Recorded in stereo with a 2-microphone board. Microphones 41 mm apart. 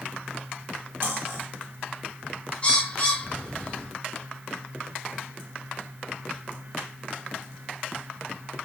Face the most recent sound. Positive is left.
turn(degrees=30)  # may be behind; listen again after turning